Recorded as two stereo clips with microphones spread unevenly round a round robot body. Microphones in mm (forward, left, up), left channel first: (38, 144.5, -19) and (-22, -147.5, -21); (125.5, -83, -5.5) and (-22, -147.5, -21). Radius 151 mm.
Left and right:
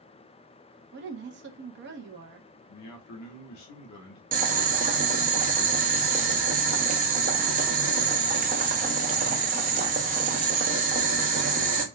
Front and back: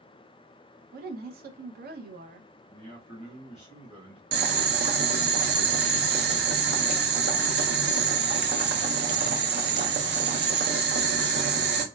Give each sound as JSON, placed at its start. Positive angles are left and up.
{"t": 0.9, "sound": "a woman speaking", "azimuth_deg": -155, "distance_m": 0.6}
{"t": 2.7, "sound": "a man speaking", "azimuth_deg": 80, "distance_m": 0.8}
{"t": 4.3, "sound": "boiling", "azimuth_deg": -165, "distance_m": 0.5}